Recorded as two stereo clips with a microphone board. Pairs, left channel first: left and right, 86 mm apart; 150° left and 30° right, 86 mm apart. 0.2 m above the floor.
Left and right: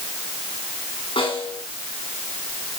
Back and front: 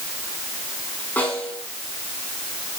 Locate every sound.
1.2 s a snare drum: 80° left, 8 m